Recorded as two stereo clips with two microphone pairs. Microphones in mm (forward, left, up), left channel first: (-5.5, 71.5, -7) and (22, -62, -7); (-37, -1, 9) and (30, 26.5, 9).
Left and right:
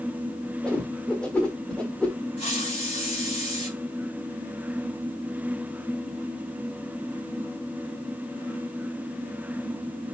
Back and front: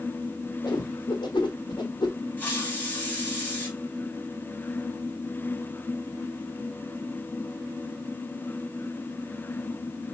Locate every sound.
0.6 s a whoosh: 175° right, 1.4 m
2.4 s a hiss: 135° left, 2.0 m